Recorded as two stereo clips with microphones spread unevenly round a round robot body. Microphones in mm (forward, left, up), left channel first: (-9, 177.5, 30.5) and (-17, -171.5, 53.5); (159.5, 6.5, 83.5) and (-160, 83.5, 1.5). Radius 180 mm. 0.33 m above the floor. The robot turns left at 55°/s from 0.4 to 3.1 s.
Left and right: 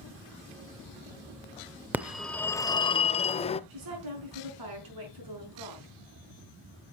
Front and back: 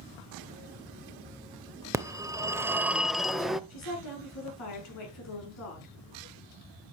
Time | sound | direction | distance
1.9 | a phone ringing | straight behind | 0.6 m
3.7 | a woman speaking | 60° right | 5 m